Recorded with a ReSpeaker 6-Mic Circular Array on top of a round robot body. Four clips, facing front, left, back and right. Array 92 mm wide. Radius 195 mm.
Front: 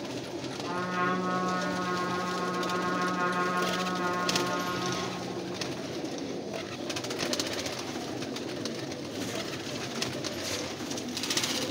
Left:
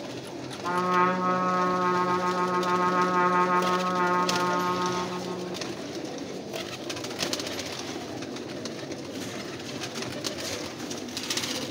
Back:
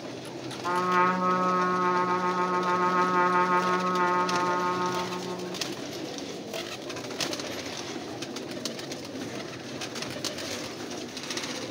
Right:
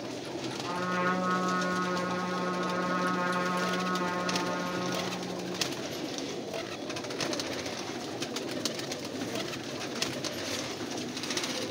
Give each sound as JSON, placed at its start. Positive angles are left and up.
{"t": 0.6, "sound": "a trumpet", "azimuth_deg": 145, "distance_m": 3.5}